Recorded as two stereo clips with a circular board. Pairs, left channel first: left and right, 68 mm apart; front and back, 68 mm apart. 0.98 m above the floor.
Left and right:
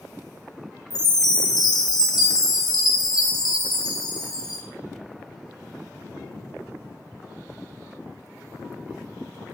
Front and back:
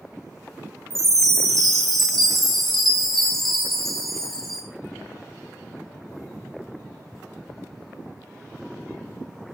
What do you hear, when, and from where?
0.9 s a chime: 85° left, 1.9 m